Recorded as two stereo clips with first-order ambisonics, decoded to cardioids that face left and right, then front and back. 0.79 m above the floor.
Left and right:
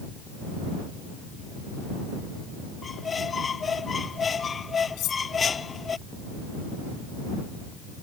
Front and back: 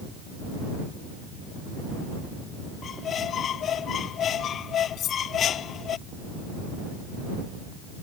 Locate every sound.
2.8 s a squeak: 30° left
5.0 s cutlery clinking: 50° left